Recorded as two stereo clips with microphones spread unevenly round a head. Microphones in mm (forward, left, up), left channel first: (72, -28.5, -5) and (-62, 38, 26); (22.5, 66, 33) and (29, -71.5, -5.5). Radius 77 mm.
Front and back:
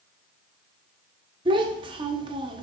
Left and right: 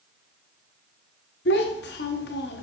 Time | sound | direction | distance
1.4 | a child speaking | 95° left | 0.9 m